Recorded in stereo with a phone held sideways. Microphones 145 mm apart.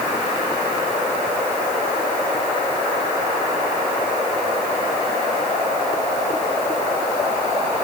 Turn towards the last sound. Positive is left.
No sound to turn to.